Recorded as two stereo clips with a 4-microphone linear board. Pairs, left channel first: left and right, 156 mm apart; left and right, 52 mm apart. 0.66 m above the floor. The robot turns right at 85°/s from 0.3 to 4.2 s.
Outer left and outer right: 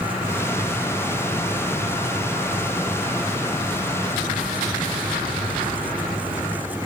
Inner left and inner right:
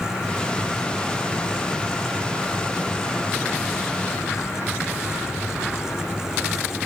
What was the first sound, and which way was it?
Only background noise.